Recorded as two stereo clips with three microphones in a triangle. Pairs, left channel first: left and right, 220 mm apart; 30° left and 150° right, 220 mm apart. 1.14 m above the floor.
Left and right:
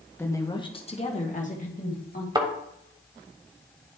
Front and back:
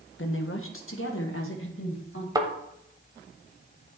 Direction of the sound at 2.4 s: 115° right.